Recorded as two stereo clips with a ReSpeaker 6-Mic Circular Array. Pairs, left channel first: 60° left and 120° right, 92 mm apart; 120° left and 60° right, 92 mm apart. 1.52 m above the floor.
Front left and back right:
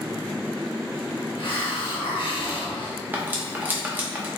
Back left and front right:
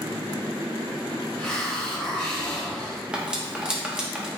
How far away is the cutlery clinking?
About 0.7 m.